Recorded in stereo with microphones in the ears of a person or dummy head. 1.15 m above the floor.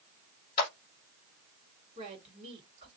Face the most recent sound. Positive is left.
turn(degrees=-35)  # may be behind; listen again after turning